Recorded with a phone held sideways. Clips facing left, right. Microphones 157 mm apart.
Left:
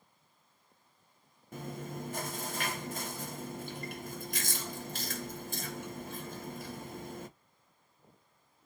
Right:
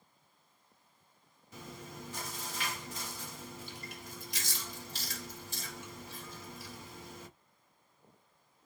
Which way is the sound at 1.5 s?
55° left (ahead or behind).